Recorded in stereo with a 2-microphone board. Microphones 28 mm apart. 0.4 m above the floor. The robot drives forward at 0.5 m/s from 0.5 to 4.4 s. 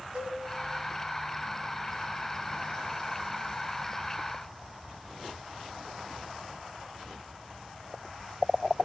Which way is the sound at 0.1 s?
35° right (ahead or behind).